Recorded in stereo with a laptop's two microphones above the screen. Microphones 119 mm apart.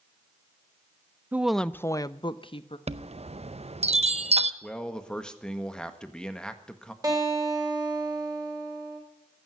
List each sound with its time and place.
1.3 s a woman speaking: 15° right (ahead or behind), 0.6 m; by 2.8 s 50° left (ahead or behind), 1.1 m
2.9 s a chime: 60° right (ahead or behind), 0.5 m
4.6 s a man speaking: 5° left (ahead or behind), 1.5 m
7.0 s a guitar: 30° right (ahead or behind), 3 m